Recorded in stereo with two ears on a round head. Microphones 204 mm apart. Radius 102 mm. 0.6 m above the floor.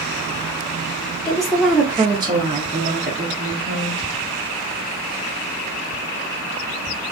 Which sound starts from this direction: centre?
A woman speaking, at 1.2 s.